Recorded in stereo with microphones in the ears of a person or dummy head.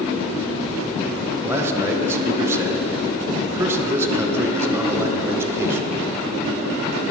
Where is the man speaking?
15° right (ahead or behind), 0.6 m.